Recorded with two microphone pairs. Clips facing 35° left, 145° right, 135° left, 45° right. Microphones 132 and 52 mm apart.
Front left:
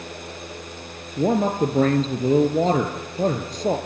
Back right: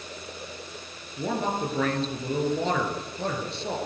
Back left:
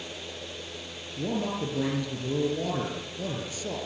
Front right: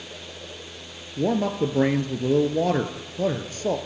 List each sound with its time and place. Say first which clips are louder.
1.2 s a man speaking: front left 8 dB, front right 7 dB; 5° right, 2.5 m